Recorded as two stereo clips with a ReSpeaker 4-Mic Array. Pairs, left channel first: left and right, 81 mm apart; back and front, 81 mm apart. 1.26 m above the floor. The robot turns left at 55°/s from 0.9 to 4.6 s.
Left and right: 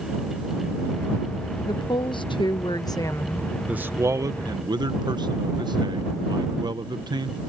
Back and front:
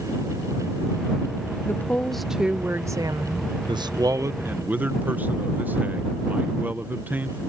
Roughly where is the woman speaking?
Behind left.